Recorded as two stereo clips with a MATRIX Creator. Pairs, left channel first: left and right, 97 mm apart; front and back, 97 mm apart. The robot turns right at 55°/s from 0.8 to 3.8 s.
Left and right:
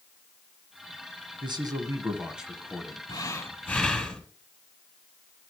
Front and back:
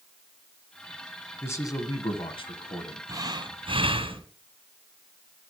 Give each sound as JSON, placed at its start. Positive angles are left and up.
{"t": 1.4, "sound": "a man speaking", "azimuth_deg": -60, "distance_m": 2.0}
{"t": 3.1, "sound": "breathing", "azimuth_deg": 130, "distance_m": 1.6}